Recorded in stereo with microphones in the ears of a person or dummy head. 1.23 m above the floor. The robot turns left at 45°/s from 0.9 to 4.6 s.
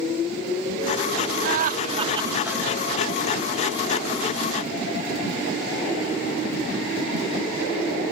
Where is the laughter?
120° right; by 2.6 s 170° right.